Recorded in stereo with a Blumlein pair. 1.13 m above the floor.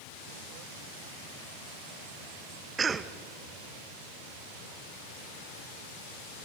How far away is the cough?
About 1.1 m.